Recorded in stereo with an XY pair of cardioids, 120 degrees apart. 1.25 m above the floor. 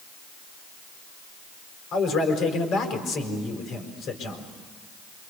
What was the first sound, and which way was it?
A man speaking, 60° left.